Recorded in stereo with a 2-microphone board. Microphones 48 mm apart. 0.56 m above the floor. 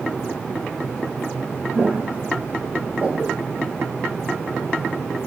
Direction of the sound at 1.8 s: 40° right (ahead or behind).